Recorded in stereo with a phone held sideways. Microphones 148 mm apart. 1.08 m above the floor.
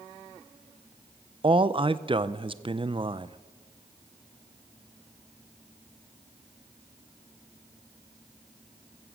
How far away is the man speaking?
About 0.6 m.